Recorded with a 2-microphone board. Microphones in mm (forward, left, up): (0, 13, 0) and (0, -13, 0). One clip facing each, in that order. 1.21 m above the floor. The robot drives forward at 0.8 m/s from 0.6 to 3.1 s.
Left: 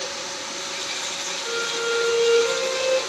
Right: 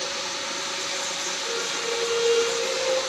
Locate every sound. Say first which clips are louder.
1.4 s a violin: left 5 dB; 35° left (ahead or behind), 3 m; by 3.0 s 55° left (ahead or behind), 2 m